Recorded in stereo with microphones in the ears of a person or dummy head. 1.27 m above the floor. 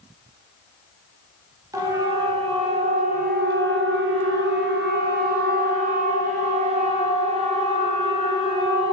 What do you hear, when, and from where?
1.7 s a siren: 15° right (ahead or behind), 2.5 m; by 8.9 s 30° right (ahead or behind), 5 m